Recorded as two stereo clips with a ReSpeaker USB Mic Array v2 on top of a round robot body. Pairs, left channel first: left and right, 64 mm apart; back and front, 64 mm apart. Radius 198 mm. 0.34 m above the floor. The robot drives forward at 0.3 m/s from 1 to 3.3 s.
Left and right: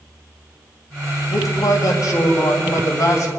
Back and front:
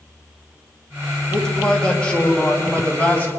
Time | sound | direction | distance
1.3 | a man speaking | 105° left | 2.5 m